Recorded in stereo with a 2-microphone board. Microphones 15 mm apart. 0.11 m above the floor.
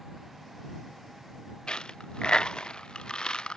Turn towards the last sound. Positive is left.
turn(degrees=85)